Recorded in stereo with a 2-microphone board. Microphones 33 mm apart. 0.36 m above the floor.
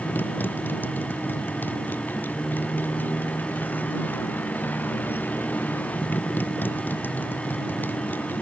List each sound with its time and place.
0.0 s a motorcycle: 75° left (ahead or behind)